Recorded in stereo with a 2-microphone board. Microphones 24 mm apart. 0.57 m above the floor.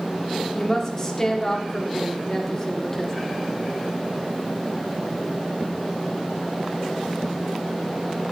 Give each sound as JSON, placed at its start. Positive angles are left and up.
{"t": 0.5, "sound": "a woman speaking", "side_deg": 25, "distance_m": 0.9}